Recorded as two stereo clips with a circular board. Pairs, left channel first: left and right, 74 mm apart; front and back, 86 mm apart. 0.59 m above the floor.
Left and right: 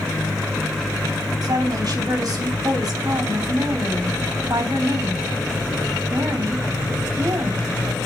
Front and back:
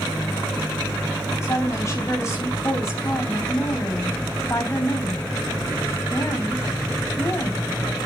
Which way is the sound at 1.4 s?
60° right.